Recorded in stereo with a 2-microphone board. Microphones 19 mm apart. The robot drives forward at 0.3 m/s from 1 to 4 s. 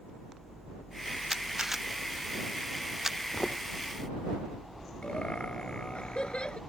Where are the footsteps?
45° left (ahead or behind).